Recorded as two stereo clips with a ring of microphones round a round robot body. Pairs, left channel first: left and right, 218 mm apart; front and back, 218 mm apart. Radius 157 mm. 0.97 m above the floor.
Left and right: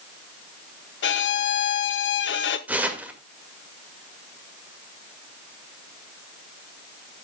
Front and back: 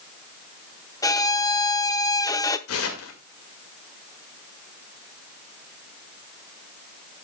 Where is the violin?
75° left, 0.8 m.